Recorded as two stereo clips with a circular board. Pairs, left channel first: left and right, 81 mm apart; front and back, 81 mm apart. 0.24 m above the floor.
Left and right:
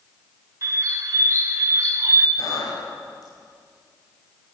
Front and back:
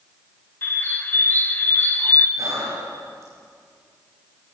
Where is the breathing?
130° left, 5.5 m.